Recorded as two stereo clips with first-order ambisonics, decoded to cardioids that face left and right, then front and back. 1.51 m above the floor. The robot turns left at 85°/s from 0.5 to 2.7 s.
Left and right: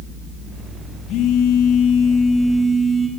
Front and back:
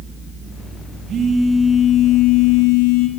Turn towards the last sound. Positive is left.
turn(degrees=-5)